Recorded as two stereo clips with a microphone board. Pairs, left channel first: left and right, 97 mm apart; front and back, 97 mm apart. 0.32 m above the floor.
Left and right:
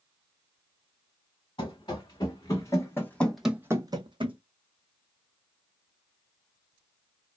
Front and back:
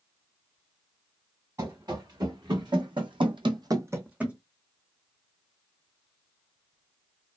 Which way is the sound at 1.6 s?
130° left.